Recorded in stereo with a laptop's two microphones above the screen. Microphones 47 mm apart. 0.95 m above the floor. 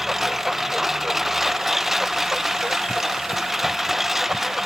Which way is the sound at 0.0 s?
5° right (ahead or behind).